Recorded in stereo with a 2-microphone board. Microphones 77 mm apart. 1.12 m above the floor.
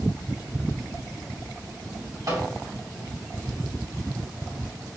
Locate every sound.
2.3 s a microwave: 55° right (ahead or behind), 2.5 m